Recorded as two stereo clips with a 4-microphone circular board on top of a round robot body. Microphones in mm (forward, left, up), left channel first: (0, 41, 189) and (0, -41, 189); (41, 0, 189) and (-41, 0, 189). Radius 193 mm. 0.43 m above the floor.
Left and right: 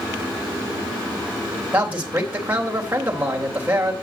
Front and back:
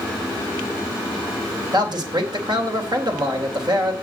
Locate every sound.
1.7 s a man speaking: 160° right, 3 m